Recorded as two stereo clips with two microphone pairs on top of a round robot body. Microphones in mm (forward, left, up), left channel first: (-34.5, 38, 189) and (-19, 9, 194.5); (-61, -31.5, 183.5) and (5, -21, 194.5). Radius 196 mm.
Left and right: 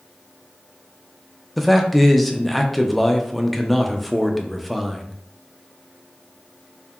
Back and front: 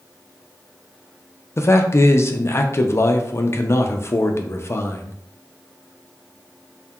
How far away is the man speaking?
About 0.5 m.